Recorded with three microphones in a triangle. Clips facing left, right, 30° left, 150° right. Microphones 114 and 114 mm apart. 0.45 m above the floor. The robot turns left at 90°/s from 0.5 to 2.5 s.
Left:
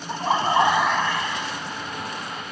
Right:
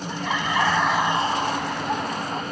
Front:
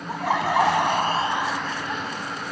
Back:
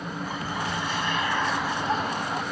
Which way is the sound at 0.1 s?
35° left.